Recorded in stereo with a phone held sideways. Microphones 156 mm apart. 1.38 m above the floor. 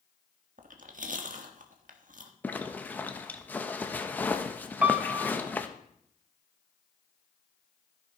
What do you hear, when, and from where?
0.6 s chewing: 60° right (ahead or behind), 1.3 m
2.4 s a zipper: 10° left (ahead or behind), 1.0 m
4.8 s a piano: 10° right (ahead or behind), 0.8 m